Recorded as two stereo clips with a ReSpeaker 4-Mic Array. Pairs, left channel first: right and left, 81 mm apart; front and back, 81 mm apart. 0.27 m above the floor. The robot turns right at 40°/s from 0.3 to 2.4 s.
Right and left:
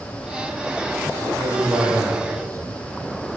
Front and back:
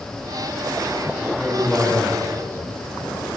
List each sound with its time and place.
1.2 s a man speaking: 80° left, 10 m; by 3.3 s 130° left, 10 m